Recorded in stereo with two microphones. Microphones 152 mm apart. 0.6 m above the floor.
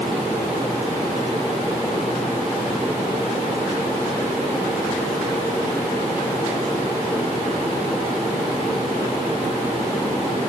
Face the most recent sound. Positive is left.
No sound to turn to.